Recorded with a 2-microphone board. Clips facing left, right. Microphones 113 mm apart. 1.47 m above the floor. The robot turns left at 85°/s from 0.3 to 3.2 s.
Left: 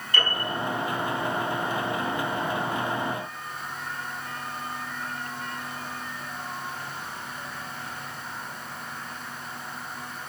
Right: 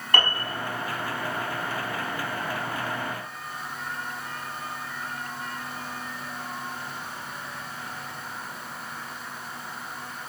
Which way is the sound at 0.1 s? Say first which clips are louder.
Right 2 dB; 60° right (ahead or behind).